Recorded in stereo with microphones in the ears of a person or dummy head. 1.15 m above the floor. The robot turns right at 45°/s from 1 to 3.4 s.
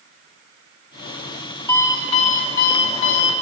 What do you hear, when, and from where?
1.7 s an alarm clock: 10° left, 0.5 m; by 3.3 s 85° left, 0.5 m